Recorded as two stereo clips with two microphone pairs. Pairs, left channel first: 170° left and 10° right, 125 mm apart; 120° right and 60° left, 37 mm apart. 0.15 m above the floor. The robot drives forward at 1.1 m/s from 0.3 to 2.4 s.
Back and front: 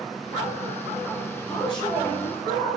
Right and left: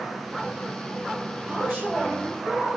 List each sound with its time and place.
1.5 s a man speaking: 115° left, 5 m; by 2.8 s 125° left, 5.5 m